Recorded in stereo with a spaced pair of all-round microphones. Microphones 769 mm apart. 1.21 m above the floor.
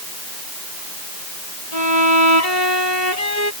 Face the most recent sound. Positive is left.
turn(degrees=55)  # may be behind; listen again after turning